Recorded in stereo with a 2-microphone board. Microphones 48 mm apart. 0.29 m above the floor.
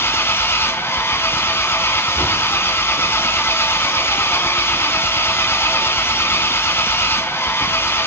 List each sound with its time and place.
0.0 s an engine running: 60° left (ahead or behind), 0.9 m